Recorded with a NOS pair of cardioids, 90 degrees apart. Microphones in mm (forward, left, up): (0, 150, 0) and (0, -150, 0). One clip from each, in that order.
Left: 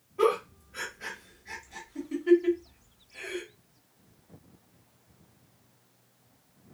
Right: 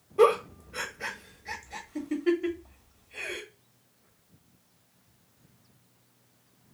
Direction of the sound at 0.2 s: 60° right.